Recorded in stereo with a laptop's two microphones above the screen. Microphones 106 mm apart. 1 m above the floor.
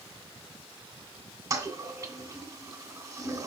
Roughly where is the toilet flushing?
Right.